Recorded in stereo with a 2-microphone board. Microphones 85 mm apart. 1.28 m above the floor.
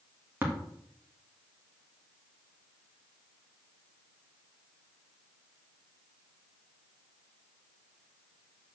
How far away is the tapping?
About 2 m.